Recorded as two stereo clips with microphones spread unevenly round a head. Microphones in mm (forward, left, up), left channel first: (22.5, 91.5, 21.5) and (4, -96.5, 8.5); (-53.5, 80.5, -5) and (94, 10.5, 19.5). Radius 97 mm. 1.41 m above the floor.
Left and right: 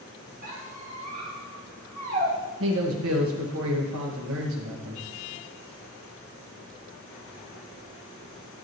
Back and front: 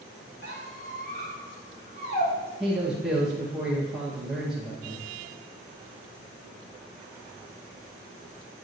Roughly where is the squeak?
Behind right.